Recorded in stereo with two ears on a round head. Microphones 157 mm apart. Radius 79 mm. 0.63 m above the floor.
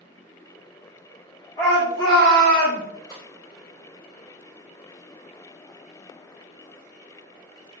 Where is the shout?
20° left (ahead or behind), 1.4 m.